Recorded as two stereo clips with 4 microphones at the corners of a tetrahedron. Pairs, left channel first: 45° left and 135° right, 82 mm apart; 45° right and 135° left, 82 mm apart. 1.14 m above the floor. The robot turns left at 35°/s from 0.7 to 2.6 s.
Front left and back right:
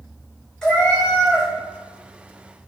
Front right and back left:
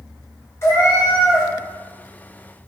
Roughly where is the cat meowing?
Ahead right.